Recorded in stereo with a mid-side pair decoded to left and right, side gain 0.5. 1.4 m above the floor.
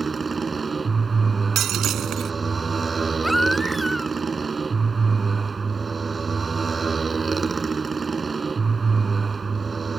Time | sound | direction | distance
0.0 | a motorcycle | 30° right | ?
1.6 | breaking glass | 65° right | ?
3.2 | a baby crying | 5° right | ?